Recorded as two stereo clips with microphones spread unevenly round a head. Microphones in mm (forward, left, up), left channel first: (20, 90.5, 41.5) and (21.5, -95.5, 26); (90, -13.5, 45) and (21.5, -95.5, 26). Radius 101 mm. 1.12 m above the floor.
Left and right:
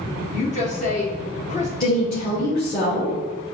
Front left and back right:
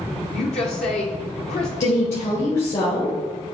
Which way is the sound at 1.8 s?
50° left.